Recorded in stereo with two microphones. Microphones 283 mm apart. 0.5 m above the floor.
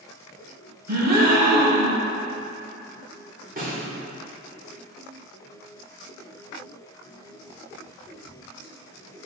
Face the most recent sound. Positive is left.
turn(degrees=-30)  # may be behind; listen again after turning